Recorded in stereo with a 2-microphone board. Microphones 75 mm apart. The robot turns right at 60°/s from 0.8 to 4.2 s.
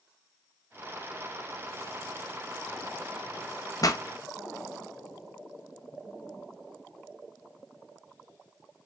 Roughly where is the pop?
Left.